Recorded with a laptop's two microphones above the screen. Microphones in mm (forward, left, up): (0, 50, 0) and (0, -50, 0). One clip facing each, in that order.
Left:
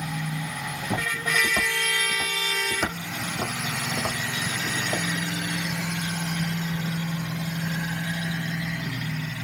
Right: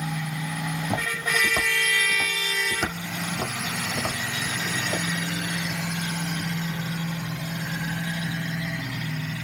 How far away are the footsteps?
About 2.5 m.